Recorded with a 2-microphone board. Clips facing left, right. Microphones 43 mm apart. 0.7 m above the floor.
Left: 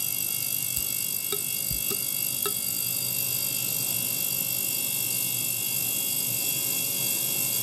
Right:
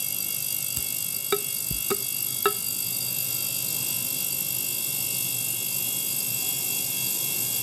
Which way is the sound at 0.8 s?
40° right (ahead or behind).